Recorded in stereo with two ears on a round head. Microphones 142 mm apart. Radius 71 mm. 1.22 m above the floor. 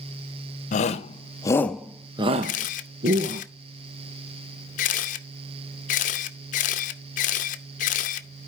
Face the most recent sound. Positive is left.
turn(degrees=55)  # may be behind; listen again after turning